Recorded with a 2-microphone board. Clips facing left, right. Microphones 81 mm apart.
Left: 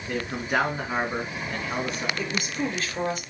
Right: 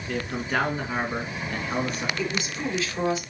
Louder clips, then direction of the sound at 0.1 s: Left 1 dB; 15° left (ahead or behind).